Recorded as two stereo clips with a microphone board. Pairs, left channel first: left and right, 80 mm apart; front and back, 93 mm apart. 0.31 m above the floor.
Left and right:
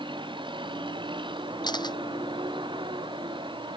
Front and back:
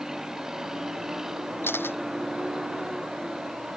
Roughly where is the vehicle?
Right.